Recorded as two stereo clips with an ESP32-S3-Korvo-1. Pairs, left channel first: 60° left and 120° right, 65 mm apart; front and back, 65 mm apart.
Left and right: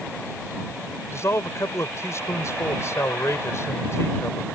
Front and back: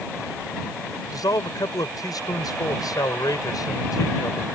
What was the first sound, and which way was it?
A man speaking, 15° left.